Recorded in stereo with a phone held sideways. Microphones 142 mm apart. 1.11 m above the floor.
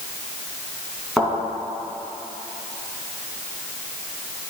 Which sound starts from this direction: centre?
A thud, at 1.2 s.